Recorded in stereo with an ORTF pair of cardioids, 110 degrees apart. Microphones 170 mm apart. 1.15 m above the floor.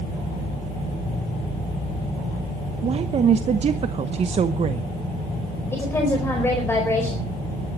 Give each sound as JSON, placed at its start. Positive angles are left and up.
{"t": 2.8, "sound": "a woman speaking", "azimuth_deg": -40, "distance_m": 0.9}
{"t": 5.7, "sound": "a woman speaking", "azimuth_deg": 15, "distance_m": 4.5}